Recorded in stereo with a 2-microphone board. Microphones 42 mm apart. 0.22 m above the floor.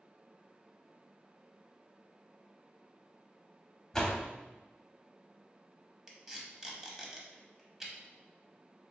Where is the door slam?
15° left (ahead or behind), 0.6 m.